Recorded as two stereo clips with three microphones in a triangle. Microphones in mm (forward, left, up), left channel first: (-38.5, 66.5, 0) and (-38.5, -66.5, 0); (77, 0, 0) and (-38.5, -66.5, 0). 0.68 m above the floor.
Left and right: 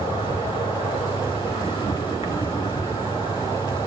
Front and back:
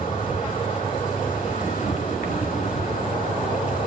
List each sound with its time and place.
0.0 s an insect: 40° left, 2 m